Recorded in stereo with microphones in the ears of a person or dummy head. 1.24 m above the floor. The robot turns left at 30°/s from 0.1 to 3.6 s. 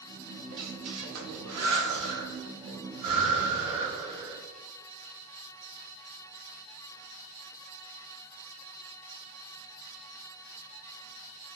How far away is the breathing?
About 1.2 m.